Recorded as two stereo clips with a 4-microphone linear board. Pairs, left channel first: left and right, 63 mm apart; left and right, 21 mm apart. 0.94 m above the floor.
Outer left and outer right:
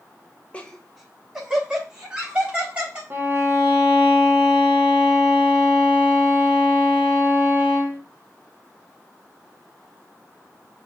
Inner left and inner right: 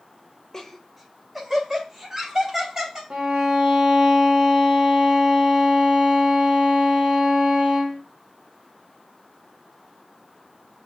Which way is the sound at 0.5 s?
20° left (ahead or behind).